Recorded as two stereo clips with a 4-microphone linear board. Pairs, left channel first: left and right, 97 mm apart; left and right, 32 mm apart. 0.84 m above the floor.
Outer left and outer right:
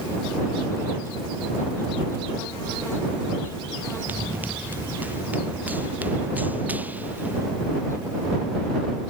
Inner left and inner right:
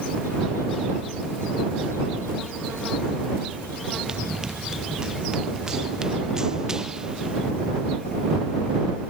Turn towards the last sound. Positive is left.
turn(degrees=-15)  # may be behind; listen again after turning